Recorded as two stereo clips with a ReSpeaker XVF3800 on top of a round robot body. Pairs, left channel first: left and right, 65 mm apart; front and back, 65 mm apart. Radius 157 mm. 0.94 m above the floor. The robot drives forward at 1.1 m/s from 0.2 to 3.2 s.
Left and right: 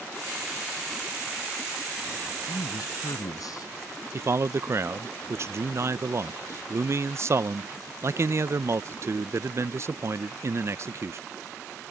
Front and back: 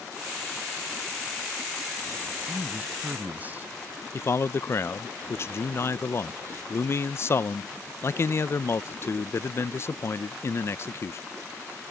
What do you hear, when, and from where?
2.4 s a man speaking: 110° left; by 3.7 s 115° left
4.1 s a man speaking: 45° right